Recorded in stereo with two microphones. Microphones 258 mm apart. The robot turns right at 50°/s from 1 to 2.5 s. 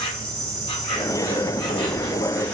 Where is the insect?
20° left (ahead or behind), 1.5 m; by 2.6 s 5° left (ahead or behind), 1.5 m.